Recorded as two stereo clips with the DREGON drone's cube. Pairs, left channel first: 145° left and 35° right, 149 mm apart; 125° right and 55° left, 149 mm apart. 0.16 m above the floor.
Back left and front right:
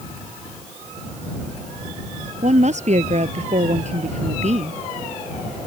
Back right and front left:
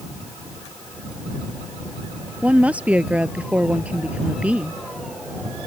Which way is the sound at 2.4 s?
25° right.